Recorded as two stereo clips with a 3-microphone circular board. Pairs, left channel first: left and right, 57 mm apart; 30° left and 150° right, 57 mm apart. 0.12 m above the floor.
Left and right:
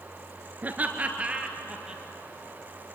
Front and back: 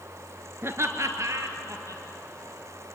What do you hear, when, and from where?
0.6 s laughter: 135° right, 1.5 m; by 2.0 s 165° right, 3 m